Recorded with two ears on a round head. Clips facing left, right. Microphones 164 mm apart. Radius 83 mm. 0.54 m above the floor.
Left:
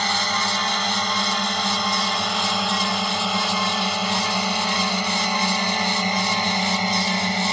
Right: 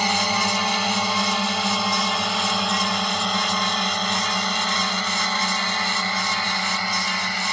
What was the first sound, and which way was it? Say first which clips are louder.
A drone: right 2 dB; 10° right (ahead or behind).